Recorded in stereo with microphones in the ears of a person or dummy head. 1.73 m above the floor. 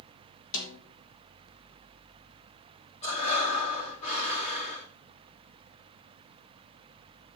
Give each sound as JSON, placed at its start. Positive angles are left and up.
{"t": 0.5, "sound": "a snare drum", "side_deg": 70, "distance_m": 3.0}
{"t": 3.0, "sound": "breathing", "side_deg": 35, "distance_m": 3.0}